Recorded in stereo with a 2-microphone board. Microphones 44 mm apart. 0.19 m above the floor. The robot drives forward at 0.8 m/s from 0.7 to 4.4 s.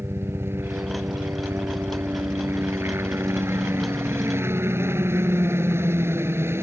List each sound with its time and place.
0.0 s a helicopter: 60° right (ahead or behind); by 6.6 s 65° right (ahead or behind)